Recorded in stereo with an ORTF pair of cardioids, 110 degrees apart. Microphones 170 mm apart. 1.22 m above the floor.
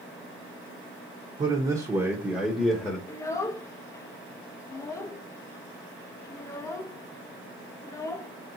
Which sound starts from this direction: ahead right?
A man speaking, at 1.4 s.